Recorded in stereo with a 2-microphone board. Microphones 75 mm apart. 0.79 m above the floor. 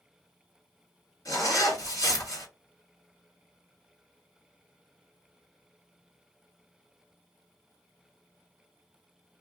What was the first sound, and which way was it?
A zipper, 50° left (ahead or behind).